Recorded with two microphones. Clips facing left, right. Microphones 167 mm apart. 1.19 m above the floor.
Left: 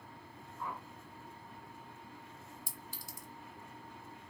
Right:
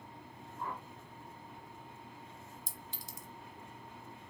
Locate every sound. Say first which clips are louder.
0.6 s a whoosh: right 1 dB; 50° right (ahead or behind), 2.5 m
2.7 s a clink: even; 20° right (ahead or behind), 0.8 m